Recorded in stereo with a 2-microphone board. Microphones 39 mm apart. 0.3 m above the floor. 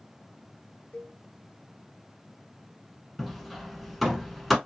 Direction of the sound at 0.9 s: 35° left (ahead or behind).